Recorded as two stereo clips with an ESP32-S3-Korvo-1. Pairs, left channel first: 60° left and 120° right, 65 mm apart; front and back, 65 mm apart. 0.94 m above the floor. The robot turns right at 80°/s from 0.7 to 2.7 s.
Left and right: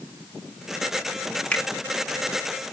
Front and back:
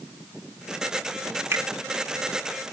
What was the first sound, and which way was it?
A finger snap, 130° left.